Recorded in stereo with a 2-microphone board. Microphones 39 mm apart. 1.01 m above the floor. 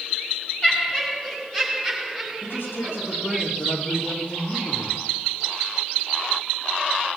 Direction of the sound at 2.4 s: 70° left (ahead or behind).